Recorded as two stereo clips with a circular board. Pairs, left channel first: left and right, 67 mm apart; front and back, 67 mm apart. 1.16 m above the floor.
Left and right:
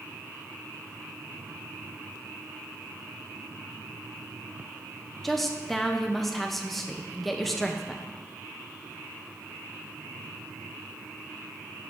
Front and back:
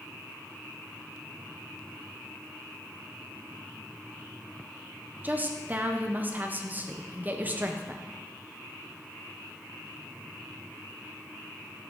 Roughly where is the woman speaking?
Behind.